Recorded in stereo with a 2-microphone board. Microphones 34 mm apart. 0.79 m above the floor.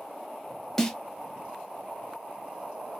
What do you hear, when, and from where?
0.8 s a snare drum: 10° left (ahead or behind), 0.9 m